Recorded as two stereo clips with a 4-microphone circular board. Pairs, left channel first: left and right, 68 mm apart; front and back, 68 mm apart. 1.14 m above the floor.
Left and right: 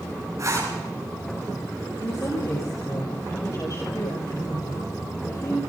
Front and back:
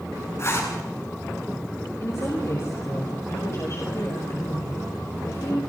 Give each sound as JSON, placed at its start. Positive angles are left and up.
{"t": 0.4, "sound": "a zipper", "azimuth_deg": -50, "distance_m": 10.0}
{"t": 2.0, "sound": "a woman speaking", "azimuth_deg": 50, "distance_m": 5.5}